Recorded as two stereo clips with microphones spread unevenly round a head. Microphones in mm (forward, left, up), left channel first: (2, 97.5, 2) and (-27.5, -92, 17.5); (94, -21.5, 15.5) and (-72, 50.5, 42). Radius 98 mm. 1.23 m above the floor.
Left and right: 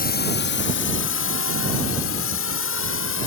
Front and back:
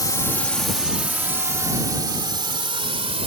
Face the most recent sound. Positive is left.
turn(degrees=100)